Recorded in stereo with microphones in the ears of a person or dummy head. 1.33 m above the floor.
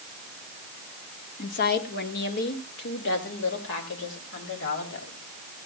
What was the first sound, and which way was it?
A woman speaking, 40° left (ahead or behind).